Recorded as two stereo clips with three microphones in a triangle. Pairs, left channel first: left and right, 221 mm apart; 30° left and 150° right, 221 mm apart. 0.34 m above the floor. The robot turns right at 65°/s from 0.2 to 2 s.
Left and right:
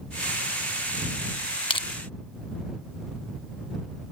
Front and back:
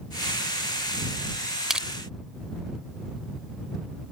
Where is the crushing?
125° left; by 1.9 s 135° left.